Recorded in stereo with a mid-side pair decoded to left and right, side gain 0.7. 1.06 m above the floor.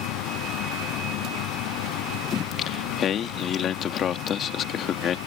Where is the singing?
40° left.